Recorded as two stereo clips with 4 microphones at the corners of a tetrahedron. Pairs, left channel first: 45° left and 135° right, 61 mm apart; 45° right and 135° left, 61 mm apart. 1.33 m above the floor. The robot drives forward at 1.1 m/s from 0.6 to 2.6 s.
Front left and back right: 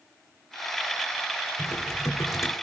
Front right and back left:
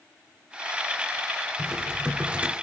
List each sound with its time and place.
1.6 s typing on a keyboard: 55° left, 3 m; by 2.5 s 75° left, 3 m